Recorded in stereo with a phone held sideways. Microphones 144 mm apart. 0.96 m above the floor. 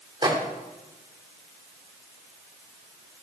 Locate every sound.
0.2 s a microwave: 35° right (ahead or behind), 2.5 m